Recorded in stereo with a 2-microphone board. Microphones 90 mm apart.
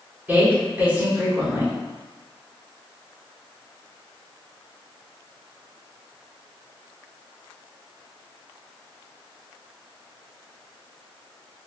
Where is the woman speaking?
20° right (ahead or behind), 1.0 m.